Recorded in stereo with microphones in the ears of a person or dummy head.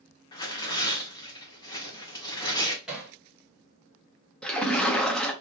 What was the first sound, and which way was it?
Tearing paper, 25° left (ahead or behind).